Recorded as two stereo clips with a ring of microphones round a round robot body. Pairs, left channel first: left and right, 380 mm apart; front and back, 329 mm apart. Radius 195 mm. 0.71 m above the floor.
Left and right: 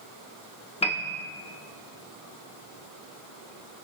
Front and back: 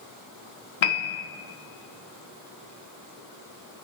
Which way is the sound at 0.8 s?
15° left.